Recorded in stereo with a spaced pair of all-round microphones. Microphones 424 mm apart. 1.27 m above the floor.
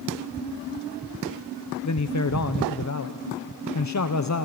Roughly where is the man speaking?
Left.